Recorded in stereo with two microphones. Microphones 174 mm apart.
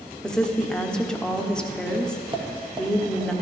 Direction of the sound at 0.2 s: 5° left (ahead or behind).